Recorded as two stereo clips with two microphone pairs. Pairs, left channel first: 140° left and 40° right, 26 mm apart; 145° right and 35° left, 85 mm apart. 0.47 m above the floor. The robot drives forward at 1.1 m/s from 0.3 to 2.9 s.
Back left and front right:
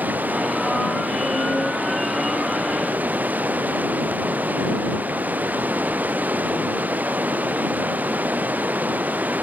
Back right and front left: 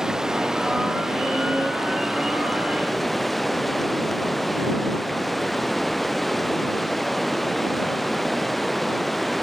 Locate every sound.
0.0 s running water: 50° right; by 9.4 s 55° right